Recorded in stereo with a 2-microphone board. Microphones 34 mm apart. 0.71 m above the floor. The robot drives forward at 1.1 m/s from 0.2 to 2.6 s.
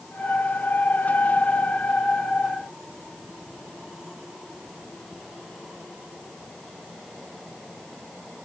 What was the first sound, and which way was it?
Only background noise.